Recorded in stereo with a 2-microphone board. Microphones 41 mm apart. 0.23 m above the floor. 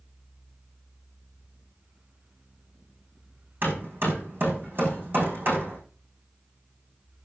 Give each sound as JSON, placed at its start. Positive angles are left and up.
{"t": 3.6, "sound": "hammering", "side_deg": -50, "distance_m": 5.5}